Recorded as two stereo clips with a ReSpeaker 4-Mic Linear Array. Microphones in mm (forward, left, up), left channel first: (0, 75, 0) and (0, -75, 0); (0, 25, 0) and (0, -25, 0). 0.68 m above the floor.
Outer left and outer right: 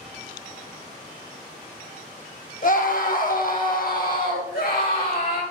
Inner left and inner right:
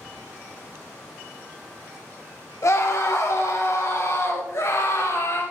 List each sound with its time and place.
2.6 s a scream: 65° left (ahead or behind), 2 m; by 5.4 s 75° left (ahead or behind), 4 m